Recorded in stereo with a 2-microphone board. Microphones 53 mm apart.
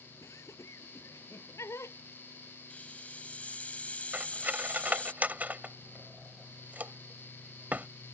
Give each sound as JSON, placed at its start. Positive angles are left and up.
{"t": 0.2, "sound": "laughter", "side_deg": 60}
{"t": 2.7, "sound": "a hiss", "side_deg": 25}
{"t": 4.1, "sound": "cutlery clinking", "side_deg": -30}